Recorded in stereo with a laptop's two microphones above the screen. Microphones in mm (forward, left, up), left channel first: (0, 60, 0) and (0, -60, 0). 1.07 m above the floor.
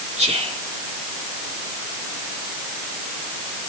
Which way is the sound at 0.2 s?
70° right (ahead or behind).